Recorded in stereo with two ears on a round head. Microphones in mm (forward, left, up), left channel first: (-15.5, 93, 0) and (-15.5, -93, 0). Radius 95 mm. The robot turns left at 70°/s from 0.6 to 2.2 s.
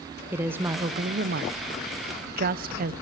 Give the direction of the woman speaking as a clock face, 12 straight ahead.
12 o'clock.